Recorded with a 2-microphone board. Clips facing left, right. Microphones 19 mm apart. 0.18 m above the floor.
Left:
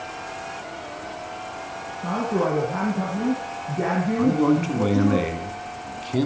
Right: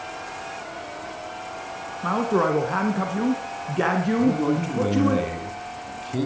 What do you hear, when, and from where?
2.0 s a woman speaking: 50° right (ahead or behind), 1.9 m
4.2 s a man speaking: 20° left (ahead or behind), 2 m